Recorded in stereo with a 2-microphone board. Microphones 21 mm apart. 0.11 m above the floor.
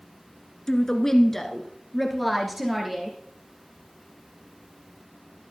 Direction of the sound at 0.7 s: 25° left (ahead or behind).